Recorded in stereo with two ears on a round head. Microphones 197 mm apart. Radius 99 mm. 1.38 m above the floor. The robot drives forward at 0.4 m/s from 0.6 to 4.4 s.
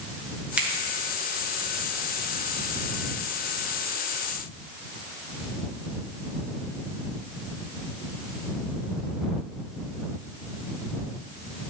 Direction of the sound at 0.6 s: 5° right (ahead or behind).